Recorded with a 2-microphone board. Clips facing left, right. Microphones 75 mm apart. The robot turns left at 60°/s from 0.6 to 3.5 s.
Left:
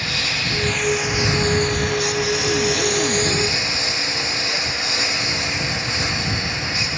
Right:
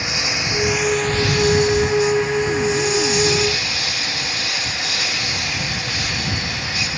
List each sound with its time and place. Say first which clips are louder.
0.0 s a lawn mower: right 1 dB; 160° right; by 7.0 s 25° left